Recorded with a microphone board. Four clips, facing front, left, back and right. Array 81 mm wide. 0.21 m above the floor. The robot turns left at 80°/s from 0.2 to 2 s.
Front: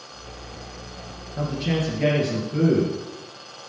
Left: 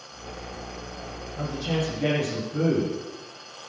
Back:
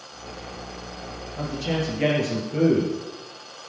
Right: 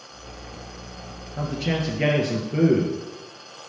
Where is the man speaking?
50° right, 3 m; by 3.0 s 100° right, 3 m.